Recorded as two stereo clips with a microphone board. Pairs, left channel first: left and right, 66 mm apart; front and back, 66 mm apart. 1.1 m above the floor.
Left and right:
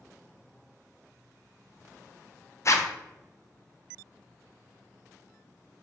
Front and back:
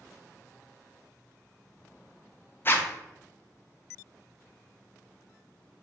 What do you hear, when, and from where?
2.6 s a zipper: 50° left, 0.5 m